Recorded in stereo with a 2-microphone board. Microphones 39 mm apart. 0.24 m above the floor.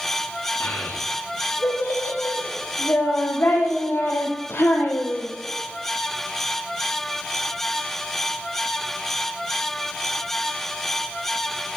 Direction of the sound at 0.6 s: 80° left.